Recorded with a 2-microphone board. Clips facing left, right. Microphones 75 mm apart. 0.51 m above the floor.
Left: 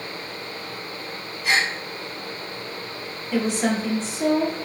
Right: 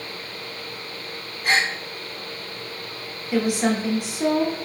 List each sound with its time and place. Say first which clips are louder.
1.4 s a gasp: right 1 dB; 40° right (ahead or behind), 1.1 m
3.3 s a woman speaking: right 1 dB; 15° right (ahead or behind), 1.1 m